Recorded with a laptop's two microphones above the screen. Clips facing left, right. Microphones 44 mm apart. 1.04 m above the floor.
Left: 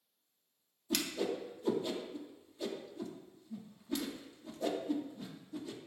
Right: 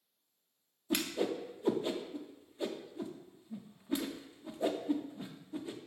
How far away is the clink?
No clink in this recording.